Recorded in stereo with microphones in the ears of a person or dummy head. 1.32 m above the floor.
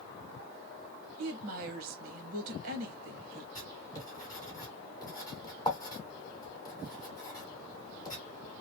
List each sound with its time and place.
1.2 s a woman speaking: 50° right (ahead or behind), 0.9 m
3.5 s writing: 25° left (ahead or behind), 1.8 m